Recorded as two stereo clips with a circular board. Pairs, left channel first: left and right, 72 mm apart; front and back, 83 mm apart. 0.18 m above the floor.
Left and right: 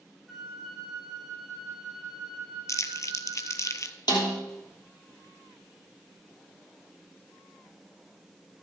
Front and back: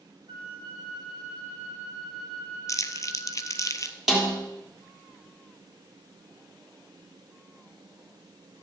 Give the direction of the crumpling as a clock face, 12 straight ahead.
10 o'clock.